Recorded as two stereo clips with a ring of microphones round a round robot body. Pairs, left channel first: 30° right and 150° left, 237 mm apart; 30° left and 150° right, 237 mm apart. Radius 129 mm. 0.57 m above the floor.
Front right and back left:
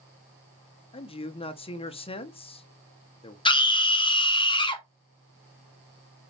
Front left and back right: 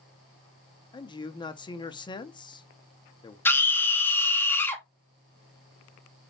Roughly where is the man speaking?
Ahead.